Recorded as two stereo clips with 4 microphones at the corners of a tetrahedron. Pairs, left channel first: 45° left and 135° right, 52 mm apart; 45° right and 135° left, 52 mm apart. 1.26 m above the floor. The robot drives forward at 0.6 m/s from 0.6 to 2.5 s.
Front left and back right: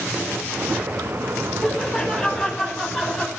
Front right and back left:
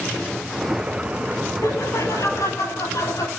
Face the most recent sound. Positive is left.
turn(degrees=-40)